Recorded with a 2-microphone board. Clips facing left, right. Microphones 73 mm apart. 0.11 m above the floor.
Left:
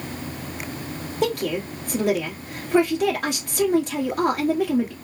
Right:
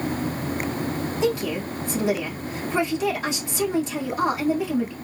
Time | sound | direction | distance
1.2 | a woman speaking | 55° left (ahead or behind) | 2.5 m